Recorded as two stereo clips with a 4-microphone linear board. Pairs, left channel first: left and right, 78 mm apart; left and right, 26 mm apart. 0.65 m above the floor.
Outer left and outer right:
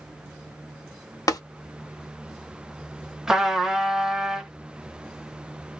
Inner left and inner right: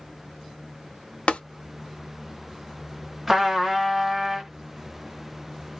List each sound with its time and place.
1.3 s tapping: 50° left (ahead or behind), 0.6 m
3.3 s a trumpet: 5° right (ahead or behind), 0.9 m